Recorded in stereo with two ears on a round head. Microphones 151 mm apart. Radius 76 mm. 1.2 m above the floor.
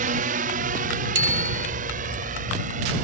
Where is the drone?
50° right (ahead or behind).